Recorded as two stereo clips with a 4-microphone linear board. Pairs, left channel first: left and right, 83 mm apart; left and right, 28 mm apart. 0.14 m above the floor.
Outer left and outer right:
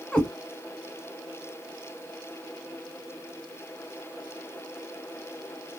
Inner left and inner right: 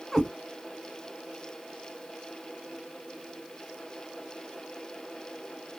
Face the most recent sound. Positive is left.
turn(degrees=15)  # may be behind; listen again after turning